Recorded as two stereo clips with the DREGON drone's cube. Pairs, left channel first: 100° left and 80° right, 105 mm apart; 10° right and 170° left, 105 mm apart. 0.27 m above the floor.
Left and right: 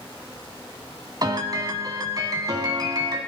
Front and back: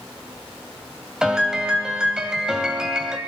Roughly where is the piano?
Right.